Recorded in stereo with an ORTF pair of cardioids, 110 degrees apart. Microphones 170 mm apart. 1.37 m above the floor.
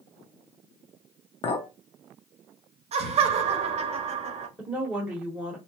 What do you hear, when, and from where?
1.4 s a clink: 40° left, 0.6 m
2.9 s laughter: 45° right, 0.8 m
4.6 s a woman speaking: 5° right, 0.9 m